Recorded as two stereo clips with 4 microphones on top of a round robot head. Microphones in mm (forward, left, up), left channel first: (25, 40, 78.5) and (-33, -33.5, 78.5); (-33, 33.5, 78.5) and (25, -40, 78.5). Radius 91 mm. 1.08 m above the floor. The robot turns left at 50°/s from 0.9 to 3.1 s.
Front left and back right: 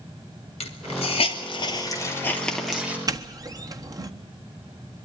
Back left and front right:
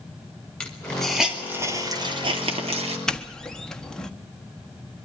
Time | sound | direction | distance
0.6 | a hiss | 50° left | 2.5 m
3.1 | a doorbell | 150° right | 1.5 m